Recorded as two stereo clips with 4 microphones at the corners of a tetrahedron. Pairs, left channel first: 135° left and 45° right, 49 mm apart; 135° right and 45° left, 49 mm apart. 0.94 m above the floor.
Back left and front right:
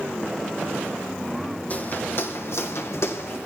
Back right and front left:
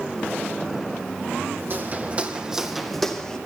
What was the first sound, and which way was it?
Footsteps, 85° left.